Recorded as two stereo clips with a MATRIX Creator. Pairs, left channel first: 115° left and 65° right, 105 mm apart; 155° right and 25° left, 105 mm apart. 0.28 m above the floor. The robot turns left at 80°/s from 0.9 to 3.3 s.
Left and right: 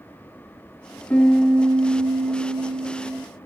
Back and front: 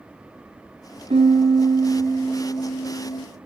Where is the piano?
40° left, 0.8 m; by 3.3 s 135° right, 0.8 m.